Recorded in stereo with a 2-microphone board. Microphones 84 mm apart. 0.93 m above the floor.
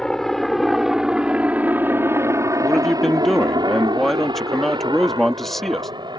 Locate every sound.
0.0 s a helicopter: 5° left (ahead or behind); by 6.2 s 65° right (ahead or behind)
2.6 s a man speaking: 5° left (ahead or behind)